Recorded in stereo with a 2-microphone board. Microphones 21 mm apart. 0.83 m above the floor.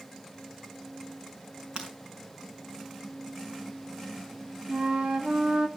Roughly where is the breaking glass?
Right.